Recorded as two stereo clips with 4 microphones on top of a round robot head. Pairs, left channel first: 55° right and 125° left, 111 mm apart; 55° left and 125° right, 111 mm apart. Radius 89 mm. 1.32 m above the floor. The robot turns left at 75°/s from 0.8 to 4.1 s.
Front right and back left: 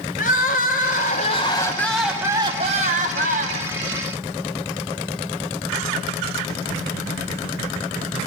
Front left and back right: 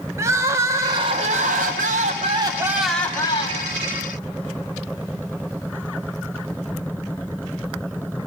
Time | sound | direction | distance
0.2 | crying | 60° right | 1.3 m